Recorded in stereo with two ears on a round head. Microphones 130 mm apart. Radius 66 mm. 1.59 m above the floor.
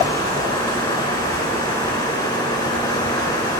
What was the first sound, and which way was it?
Running water, 30° left (ahead or behind).